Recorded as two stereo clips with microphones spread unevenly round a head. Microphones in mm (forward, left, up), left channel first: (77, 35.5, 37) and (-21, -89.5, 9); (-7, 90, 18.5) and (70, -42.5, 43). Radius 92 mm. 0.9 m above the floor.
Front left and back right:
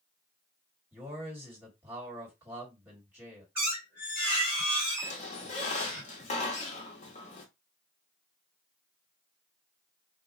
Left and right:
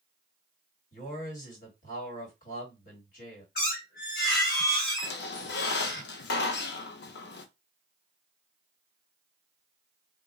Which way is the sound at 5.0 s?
110° left.